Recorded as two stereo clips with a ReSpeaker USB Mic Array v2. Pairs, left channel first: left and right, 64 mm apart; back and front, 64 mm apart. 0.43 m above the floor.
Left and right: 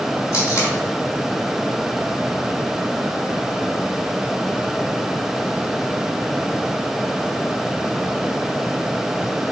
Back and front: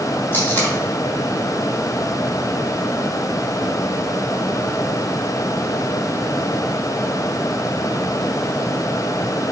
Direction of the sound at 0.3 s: 125° left.